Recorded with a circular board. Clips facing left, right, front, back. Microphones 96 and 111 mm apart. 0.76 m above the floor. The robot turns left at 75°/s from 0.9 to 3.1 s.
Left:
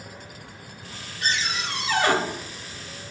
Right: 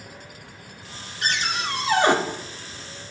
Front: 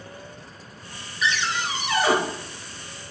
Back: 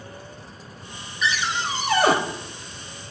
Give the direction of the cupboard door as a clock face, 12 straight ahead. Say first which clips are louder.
Right 2 dB, even; 3 o'clock.